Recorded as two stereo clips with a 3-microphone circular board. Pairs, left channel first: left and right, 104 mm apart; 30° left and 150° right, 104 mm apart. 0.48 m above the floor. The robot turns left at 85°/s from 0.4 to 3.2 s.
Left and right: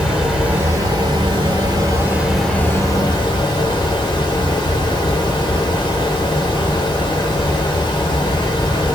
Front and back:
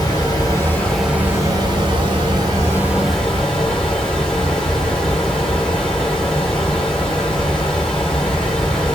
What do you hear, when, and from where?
0.0 s running water: 15° right, 1.2 m; by 8.9 s 110° left, 1.2 m